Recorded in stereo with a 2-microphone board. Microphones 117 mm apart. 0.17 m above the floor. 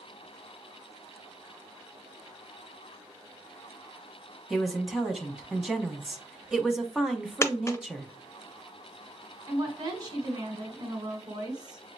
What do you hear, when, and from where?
4.5 s a woman speaking: 5° right (ahead or behind), 1.0 m
7.4 s a dropped coin: 25° left (ahead or behind), 0.5 m
9.5 s a woman speaking: 35° right (ahead or behind), 1.8 m